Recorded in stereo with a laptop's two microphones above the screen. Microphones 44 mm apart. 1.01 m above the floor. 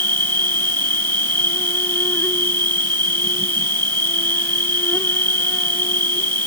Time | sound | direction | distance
0.0 | an insect | 50° left (ahead or behind) | ?